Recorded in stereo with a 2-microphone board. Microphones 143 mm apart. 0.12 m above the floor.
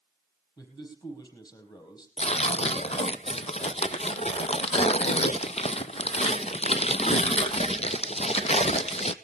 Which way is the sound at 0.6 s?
25° left (ahead or behind).